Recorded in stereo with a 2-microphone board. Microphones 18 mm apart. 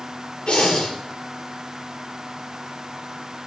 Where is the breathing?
50° left (ahead or behind), 5.5 m.